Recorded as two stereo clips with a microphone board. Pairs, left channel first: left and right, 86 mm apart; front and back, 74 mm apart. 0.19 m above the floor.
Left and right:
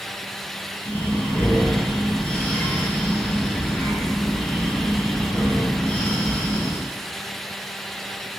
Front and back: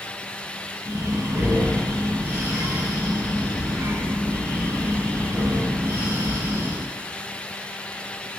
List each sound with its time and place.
0.8 s breathing: 150° left, 0.8 m